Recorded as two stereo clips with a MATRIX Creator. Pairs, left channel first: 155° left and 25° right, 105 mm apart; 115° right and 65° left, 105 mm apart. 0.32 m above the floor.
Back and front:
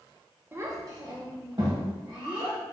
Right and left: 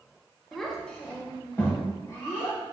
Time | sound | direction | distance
0.5 | a child speaking | 25° right | 0.7 m